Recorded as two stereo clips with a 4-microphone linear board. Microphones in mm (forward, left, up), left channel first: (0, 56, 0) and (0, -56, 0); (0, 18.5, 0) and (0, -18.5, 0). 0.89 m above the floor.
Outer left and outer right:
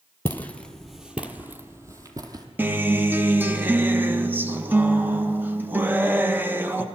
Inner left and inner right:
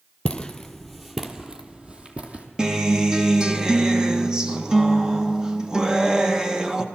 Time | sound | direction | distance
0.2 | footsteps | 20° left (ahead or behind) | 0.9 m
2.6 | a guitar | 15° right (ahead or behind) | 0.7 m